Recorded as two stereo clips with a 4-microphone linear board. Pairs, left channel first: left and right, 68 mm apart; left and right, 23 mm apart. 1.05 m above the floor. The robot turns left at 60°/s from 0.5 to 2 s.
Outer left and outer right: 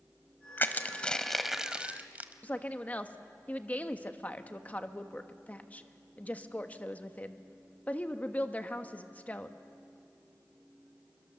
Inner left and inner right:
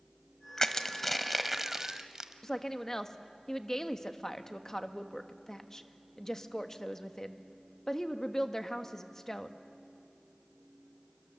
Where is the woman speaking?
25° left (ahead or behind), 1.1 m.